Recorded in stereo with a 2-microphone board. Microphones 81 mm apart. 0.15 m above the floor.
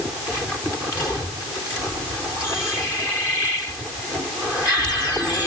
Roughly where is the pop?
I don't hear a pop.